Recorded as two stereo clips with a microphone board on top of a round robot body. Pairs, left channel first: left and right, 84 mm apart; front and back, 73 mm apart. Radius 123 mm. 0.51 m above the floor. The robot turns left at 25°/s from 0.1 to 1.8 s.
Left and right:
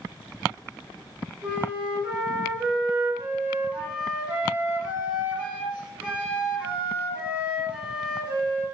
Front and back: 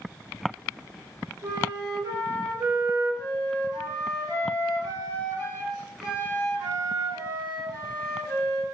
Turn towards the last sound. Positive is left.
turn(degrees=-165)